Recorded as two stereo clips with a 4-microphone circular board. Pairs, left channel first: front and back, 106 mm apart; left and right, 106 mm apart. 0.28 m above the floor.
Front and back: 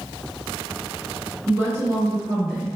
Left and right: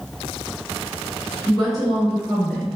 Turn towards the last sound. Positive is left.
turn(degrees=180)